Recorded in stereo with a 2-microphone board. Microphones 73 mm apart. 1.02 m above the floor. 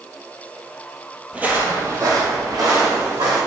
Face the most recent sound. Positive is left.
turn(degrees=-70)  # may be behind; listen again after turning